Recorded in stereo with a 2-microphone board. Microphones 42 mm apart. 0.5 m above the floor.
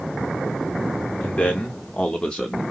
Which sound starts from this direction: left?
A man speaking, at 1.2 s.